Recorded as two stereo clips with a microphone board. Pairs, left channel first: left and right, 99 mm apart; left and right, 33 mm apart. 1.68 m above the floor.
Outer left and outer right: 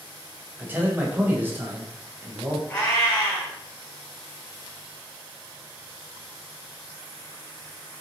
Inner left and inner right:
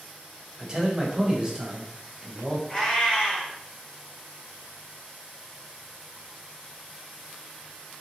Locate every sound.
0.6 s a man speaking: 20° right (ahead or behind), 1.0 m
2.7 s a cat meowing: 25° left (ahead or behind), 1.6 m